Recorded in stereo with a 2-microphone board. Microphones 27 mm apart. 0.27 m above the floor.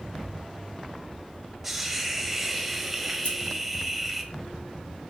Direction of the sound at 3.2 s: 65° left (ahead or behind).